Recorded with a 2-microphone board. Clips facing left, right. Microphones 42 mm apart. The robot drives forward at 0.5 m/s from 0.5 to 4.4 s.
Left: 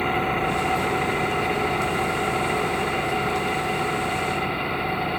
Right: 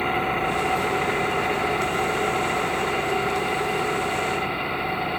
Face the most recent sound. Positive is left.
turn(degrees=0)  # may be behind; listen again after turning